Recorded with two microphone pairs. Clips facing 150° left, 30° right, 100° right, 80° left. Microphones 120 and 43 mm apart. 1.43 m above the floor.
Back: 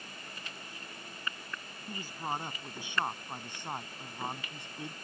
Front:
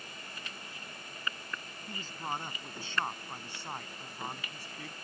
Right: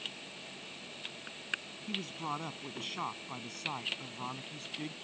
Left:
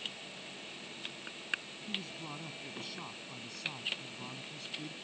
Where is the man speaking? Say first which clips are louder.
Back 2 dB, right 5 dB; 135° right; by 5.0 s 145° right.